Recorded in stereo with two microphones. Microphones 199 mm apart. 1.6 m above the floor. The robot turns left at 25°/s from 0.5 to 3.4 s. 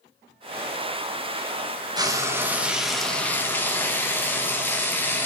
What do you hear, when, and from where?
2.0 s frying: 155° right, 1.1 m; by 5.3 s 170° left, 1.1 m